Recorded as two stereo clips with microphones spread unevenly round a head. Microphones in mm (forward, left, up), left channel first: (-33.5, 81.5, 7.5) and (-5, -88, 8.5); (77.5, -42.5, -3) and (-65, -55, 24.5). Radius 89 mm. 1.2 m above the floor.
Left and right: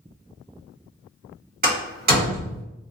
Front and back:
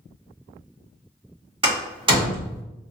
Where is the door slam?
120° right, 2.0 m.